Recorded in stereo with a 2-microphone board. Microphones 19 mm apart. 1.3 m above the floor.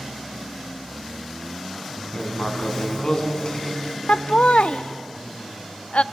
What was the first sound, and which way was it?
Writing, 40° left (ahead or behind).